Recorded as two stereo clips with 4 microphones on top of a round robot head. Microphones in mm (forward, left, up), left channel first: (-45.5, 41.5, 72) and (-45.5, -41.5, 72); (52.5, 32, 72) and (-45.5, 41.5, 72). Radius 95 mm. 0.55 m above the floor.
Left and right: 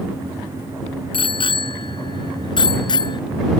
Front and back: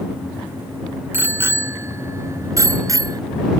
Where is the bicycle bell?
105° left; by 3.2 s 120° left.